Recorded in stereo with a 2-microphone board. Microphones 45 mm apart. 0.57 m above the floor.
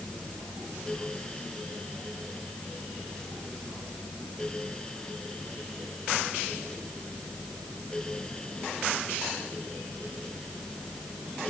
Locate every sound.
Only background noise.